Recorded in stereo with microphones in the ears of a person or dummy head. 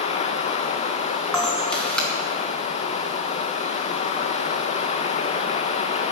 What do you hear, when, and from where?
0.0 s running water: 40° left (ahead or behind), 0.8 m
1.3 s a camera shutter: 10° left (ahead or behind), 1.9 m